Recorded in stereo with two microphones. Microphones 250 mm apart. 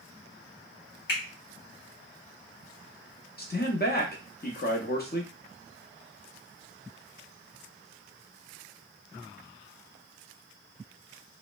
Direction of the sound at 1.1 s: 45° left (ahead or behind).